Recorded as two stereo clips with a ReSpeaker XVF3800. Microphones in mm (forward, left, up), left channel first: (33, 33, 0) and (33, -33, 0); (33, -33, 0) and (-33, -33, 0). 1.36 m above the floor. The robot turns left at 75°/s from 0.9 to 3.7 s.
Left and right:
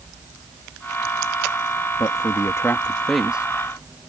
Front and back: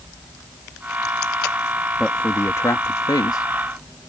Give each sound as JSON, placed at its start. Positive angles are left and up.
{"t": 2.0, "sound": "a man speaking", "azimuth_deg": 90}